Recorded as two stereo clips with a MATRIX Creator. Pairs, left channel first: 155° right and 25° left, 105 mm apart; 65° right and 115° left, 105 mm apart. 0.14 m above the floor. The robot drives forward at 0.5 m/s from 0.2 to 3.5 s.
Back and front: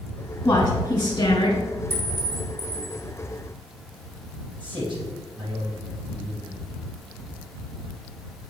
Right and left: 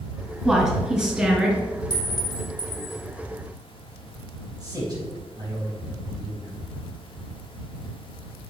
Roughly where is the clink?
Right.